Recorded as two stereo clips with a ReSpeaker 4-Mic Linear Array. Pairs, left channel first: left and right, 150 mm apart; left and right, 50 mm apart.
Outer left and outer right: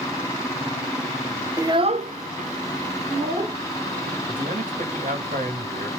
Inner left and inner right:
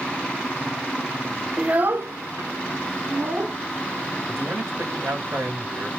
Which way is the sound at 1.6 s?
20° right (ahead or behind).